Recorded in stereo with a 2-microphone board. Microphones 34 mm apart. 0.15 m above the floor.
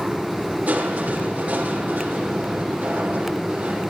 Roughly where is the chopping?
No chopping in this recording.